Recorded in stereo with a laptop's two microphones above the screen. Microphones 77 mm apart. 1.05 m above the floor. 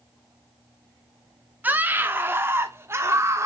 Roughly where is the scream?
Right.